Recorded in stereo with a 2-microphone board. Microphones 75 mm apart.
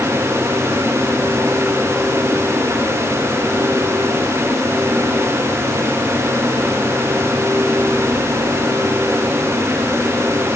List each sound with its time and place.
Only background noise.